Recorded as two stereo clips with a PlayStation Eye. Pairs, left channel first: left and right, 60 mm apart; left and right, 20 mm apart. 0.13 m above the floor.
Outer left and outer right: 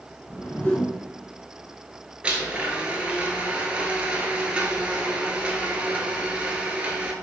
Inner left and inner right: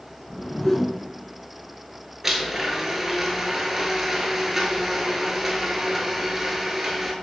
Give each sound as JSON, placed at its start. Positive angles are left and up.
{"t": 0.3, "sound": "a whoosh", "side_deg": 20, "distance_m": 0.9}
{"t": 2.2, "sound": "a blender", "side_deg": -20, "distance_m": 0.7}